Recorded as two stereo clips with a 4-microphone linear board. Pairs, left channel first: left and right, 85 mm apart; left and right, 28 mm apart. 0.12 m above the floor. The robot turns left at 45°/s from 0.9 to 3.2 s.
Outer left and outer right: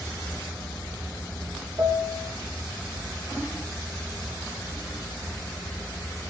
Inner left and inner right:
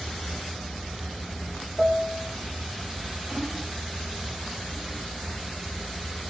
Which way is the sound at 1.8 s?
75° right (ahead or behind).